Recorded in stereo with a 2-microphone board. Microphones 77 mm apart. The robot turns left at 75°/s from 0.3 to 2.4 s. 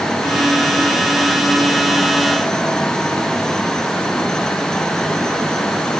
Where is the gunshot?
No gunshot in this recording.